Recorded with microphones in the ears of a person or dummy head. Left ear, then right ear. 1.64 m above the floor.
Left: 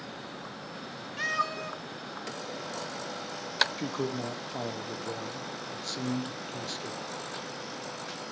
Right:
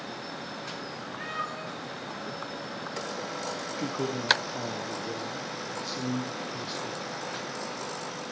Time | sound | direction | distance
1.2 | a cat meowing | 60° left (ahead or behind) | 1.9 m
3.8 | a man speaking | 30° left (ahead or behind) | 1.2 m